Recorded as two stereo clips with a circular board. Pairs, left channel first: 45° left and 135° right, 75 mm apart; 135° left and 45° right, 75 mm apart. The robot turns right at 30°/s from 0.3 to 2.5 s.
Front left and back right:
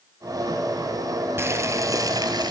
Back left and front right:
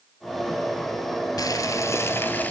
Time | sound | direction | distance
1.4 | boiling | 170° left | 1.5 m